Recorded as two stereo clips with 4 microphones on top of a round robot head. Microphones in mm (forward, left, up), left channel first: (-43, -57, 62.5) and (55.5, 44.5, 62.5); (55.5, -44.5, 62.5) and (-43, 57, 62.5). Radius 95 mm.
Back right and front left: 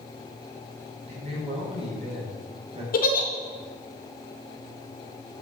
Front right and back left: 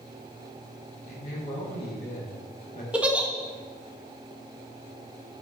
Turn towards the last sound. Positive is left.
turn(degrees=-145)